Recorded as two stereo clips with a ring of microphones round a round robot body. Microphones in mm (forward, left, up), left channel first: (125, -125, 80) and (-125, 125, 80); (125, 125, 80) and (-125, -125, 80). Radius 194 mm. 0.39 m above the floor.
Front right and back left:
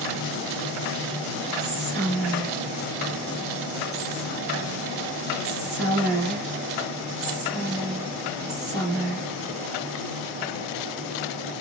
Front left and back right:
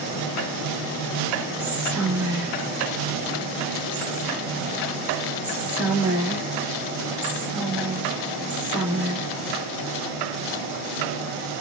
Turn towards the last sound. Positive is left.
turn(degrees=145)